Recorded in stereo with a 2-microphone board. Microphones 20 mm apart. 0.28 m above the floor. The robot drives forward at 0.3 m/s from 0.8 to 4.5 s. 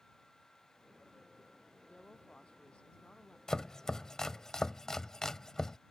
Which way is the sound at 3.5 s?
30° left (ahead or behind).